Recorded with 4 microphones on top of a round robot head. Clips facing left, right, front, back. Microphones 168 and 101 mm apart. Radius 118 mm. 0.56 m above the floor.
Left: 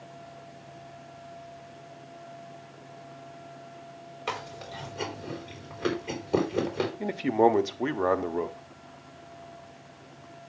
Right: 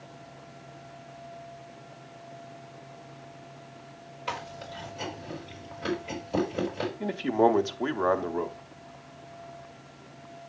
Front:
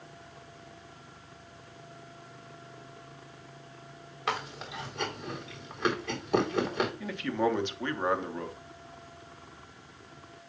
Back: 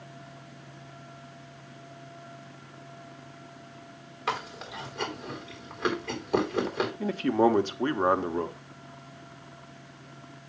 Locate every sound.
4.3 s chewing: 90° left, 4 m
7.0 s a man speaking: 160° left, 0.9 m